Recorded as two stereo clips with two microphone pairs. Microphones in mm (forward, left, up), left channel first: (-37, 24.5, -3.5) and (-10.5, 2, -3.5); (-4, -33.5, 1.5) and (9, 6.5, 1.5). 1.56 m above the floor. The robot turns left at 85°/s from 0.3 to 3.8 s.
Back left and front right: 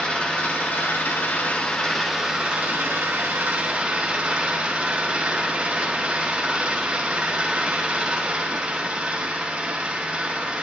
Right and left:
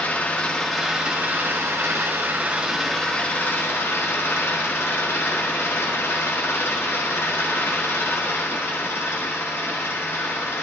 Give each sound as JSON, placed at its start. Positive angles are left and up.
{"t": 0.0, "sound": "an engine running", "azimuth_deg": -160, "distance_m": 2.0}